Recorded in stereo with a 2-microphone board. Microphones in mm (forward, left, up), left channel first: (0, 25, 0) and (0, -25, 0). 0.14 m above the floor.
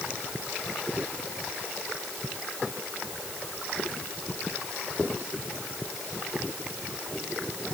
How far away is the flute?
No flute in this recording.